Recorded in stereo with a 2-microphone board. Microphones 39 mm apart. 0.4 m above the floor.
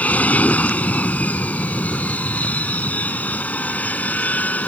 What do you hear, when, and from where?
0.0 s an aircraft: 40° left (ahead or behind); by 4.7 s 45° left (ahead or behind)